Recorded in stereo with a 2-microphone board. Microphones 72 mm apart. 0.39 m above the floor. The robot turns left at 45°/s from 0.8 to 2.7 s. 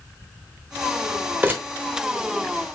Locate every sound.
1.4 s crumpling: 25° right (ahead or behind), 0.7 m